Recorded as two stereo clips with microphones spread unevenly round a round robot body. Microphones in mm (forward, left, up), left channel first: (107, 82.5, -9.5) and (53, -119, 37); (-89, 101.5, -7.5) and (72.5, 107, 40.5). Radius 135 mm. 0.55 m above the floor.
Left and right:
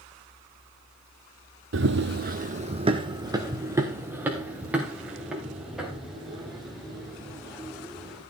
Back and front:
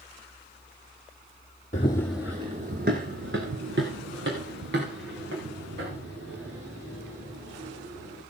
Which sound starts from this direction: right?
Running footsteps, at 1.7 s.